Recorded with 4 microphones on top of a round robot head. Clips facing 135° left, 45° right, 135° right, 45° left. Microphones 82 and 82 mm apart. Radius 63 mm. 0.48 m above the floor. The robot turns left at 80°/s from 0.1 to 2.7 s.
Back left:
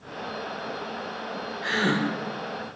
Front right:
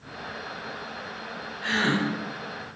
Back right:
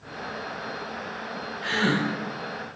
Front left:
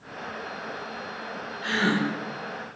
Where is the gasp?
50° left, 1.3 m; by 2.0 s 20° left, 1.3 m.